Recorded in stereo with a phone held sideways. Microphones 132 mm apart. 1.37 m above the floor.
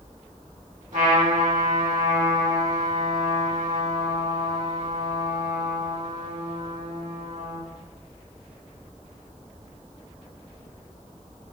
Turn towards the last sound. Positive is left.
turn(degrees=-75)  # may be behind; listen again after turning